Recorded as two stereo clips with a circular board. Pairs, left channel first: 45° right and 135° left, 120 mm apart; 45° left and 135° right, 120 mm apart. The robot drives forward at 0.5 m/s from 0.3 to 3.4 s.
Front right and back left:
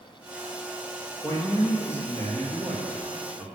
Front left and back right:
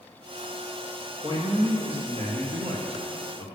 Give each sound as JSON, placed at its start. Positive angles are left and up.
{"t": 1.2, "sound": "a man speaking", "azimuth_deg": -100, "distance_m": 2.5}